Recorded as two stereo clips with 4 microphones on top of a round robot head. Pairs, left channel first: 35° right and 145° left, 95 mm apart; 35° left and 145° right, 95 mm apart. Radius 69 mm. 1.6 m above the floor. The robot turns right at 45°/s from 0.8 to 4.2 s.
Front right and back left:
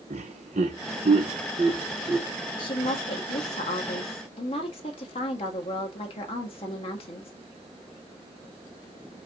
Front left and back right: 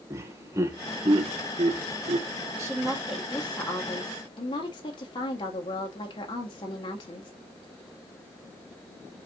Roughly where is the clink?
I don't hear a clink.